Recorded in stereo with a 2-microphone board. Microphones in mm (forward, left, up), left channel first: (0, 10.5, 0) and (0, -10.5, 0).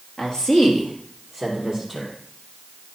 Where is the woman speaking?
30° left (ahead or behind), 2 m; by 2.1 s centre (ahead or behind), 3.5 m.